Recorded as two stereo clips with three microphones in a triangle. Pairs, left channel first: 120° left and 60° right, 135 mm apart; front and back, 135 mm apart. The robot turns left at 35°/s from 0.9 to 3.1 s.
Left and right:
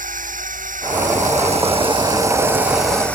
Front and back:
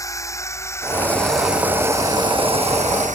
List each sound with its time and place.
0.0 s a drone: 65° right; by 3.2 s 160° right